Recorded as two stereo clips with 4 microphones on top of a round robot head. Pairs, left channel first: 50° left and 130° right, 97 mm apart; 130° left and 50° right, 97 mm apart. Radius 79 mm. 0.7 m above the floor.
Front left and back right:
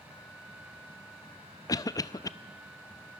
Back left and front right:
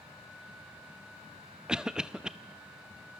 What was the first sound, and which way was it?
A cough, 30° left.